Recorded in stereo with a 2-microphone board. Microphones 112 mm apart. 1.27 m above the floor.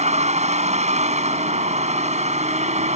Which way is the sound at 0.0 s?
80° right.